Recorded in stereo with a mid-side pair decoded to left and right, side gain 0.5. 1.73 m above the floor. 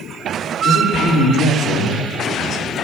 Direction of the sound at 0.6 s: 65° left.